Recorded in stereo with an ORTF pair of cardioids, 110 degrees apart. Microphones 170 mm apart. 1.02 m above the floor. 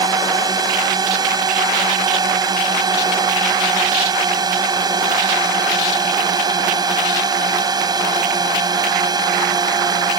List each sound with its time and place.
0.0 s a drone: 25° right